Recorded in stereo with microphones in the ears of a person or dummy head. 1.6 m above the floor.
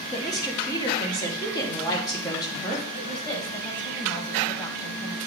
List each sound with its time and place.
0.1 s a woman speaking: 25° left (ahead or behind), 1.6 m
2.9 s a woman speaking: 25° left (ahead or behind), 1.2 m